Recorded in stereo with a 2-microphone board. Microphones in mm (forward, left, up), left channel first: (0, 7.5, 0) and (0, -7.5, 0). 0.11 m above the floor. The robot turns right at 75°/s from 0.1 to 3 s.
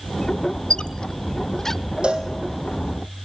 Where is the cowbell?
70° right (ahead or behind), 2.5 m; by 2.3 s 55° right (ahead or behind), 2.5 m.